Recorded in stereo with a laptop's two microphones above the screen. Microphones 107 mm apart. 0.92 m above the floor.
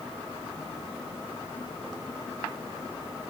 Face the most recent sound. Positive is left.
No sound to turn to.